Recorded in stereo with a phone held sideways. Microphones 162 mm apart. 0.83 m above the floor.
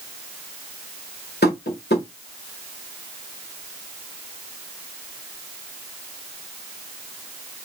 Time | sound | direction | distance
1.4 | tapping | 85° left | 1.5 m